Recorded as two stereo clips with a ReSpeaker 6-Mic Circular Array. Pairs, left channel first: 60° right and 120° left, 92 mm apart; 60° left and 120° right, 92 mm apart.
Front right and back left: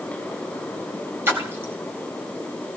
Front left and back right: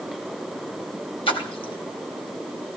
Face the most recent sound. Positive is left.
turn(degrees=55)